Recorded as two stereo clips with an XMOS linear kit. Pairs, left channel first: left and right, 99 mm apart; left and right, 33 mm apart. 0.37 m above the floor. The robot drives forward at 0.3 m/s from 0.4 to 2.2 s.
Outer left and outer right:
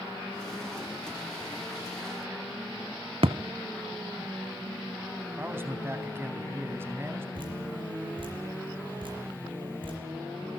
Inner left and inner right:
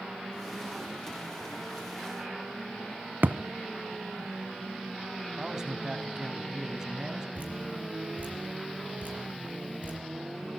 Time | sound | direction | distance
3.2 | a thud | 70° right (ahead or behind) | 1.0 m
5.4 | a man speaking | 25° right (ahead or behind) | 3 m
7.3 | dripping | 55° right (ahead or behind) | 6 m